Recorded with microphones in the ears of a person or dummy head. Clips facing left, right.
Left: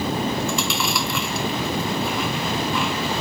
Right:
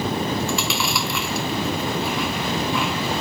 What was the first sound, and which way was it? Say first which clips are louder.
Chewing: even; centre (ahead or behind).